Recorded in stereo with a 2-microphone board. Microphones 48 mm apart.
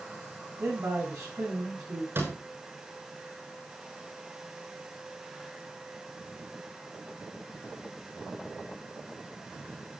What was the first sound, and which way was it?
A man speaking, 70° right (ahead or behind).